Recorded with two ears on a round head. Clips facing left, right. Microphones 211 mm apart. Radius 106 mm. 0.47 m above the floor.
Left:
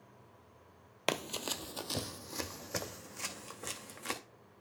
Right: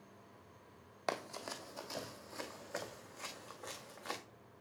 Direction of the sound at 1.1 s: 50° left (ahead or behind).